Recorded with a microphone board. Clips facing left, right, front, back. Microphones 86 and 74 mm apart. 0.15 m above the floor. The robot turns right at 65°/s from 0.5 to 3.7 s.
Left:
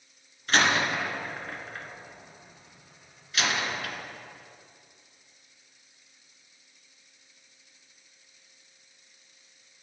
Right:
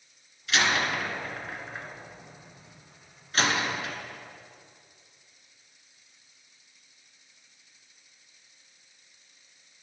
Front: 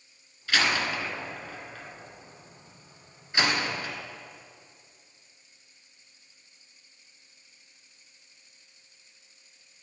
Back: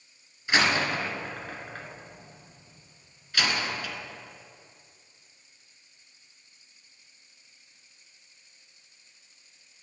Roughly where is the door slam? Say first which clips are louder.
Left 2 dB, back 2 dB; behind left.